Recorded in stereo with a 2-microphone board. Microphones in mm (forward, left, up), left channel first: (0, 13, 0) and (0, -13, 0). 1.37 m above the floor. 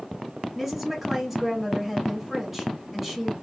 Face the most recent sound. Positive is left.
turn(degrees=-5)  # may be behind; listen again after turning